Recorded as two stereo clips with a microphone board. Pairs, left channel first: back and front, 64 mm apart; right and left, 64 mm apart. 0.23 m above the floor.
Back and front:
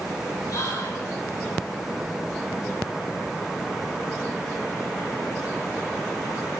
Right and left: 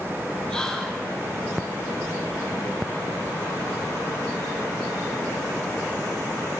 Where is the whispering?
165° right, 4.5 m.